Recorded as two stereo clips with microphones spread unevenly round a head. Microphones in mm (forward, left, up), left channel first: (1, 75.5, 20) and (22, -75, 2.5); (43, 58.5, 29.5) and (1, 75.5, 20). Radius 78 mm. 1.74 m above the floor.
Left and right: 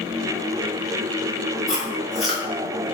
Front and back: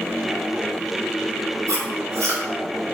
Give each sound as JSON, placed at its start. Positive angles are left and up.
{"t": 1.7, "sound": "chewing", "azimuth_deg": -170, "distance_m": 3.0}